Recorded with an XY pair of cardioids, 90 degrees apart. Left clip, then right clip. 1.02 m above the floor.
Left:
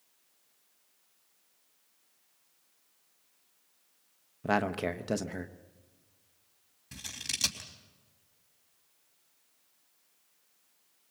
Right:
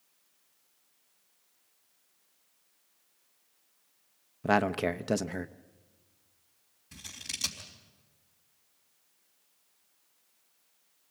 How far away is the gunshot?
No gunshot in this recording.